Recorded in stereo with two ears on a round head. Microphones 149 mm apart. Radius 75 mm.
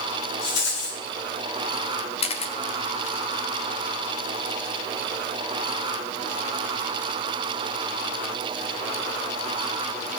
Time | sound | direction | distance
0.4 | a rattle | 80° left | 7 m
2.2 | a camera shutter | 40° left (ahead or behind) | 1.9 m